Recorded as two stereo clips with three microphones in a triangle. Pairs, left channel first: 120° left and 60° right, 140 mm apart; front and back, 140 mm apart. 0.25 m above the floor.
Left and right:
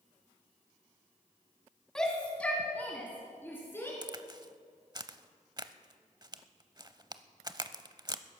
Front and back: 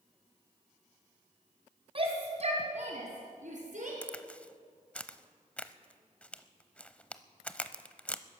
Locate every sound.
1.9 s a shout: 155° right, 1.7 m; by 3.9 s 170° right, 3.5 m
4.0 s a crack: 75° right, 0.6 m